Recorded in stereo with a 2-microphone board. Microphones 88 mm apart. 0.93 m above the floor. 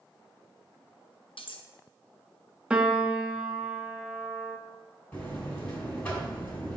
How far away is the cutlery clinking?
About 0.6 m.